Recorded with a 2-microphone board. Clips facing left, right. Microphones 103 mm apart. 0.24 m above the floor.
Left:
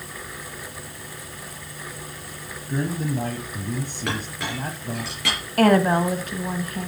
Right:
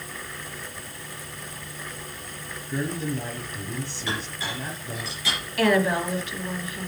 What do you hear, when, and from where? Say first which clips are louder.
2.7 s a man speaking: left 3 dB; 45° left (ahead or behind), 1.9 m
4.1 s a clink: left 2 dB; 65° left (ahead or behind), 3 m
5.6 s a woman speaking: left 4 dB; 45° left (ahead or behind), 1.6 m